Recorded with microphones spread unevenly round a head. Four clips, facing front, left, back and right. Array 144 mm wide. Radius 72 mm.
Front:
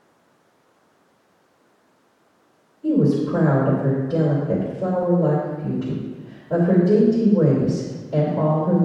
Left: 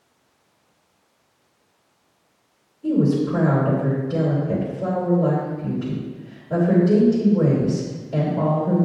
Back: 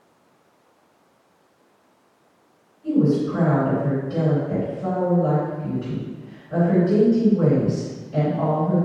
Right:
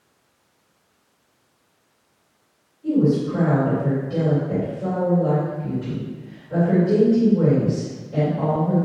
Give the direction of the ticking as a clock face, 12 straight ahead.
No ticking in this recording.